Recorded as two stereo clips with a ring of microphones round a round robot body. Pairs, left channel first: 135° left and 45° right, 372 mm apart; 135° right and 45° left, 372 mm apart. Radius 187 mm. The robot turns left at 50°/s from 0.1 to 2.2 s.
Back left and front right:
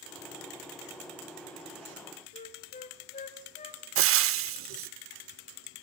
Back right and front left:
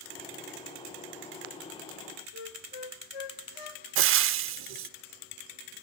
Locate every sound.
2.3 s a flute: 155° right, 1.4 m
4.0 s frying: straight ahead, 0.7 m